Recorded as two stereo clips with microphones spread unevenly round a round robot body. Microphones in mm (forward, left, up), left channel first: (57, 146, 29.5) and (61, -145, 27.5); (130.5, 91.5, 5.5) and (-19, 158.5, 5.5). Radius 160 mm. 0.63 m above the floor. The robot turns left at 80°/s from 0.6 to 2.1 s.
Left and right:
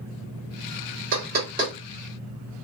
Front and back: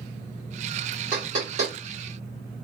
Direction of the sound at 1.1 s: 120° right.